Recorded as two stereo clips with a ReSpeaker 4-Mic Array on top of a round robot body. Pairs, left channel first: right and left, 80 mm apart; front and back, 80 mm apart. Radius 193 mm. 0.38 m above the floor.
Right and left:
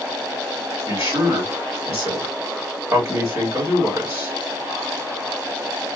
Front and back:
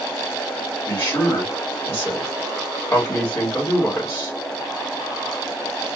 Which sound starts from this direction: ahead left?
A man speaking, at 0.9 s.